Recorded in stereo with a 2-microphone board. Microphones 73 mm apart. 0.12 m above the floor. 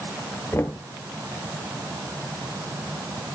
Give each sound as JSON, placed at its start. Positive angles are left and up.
{"t": 0.5, "sound": "knocking", "side_deg": 35, "distance_m": 1.6}